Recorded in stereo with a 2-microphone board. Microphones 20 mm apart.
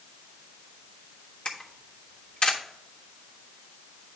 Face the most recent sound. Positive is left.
turn(degrees=65)  # may be behind; listen again after turning